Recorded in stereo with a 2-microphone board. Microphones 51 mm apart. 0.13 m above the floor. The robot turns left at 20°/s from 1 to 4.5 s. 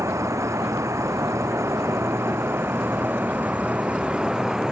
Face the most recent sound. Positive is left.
turn(degrees=-165)